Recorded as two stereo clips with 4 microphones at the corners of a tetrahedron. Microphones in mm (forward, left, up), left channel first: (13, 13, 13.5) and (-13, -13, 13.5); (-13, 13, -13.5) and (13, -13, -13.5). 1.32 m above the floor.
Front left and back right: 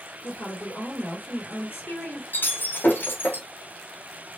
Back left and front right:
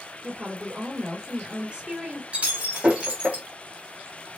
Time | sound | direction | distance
0.2 | a woman speaking | 20° left | 3 m
2.3 | breaking glass | 10° left | 2.5 m